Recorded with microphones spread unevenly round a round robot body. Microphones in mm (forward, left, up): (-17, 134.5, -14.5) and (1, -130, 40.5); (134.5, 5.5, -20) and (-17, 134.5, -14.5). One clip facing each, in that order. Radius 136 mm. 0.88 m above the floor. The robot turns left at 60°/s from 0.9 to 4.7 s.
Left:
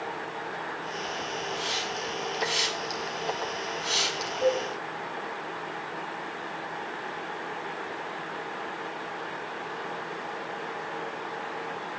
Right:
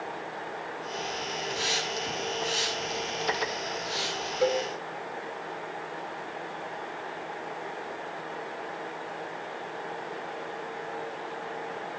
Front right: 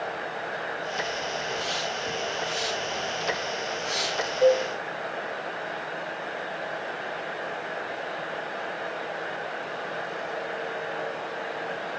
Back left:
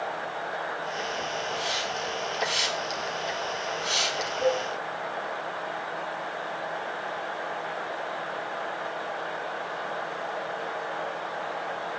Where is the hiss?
125° right, 6.5 m; by 4.3 s 65° left, 6.5 m.